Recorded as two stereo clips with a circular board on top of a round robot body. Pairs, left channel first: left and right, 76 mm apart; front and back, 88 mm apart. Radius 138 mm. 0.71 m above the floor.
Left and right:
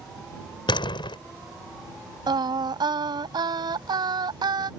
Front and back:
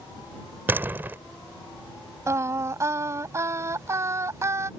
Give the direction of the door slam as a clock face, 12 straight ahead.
8 o'clock.